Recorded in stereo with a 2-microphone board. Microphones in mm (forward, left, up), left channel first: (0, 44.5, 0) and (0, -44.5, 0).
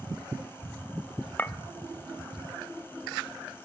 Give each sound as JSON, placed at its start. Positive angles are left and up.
{"t": 1.4, "sound": "a clink", "side_deg": 20, "distance_m": 0.8}